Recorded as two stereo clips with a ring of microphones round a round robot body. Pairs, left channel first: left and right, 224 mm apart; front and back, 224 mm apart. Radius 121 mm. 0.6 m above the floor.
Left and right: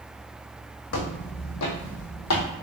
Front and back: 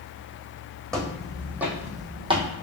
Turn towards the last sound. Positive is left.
turn(degrees=115)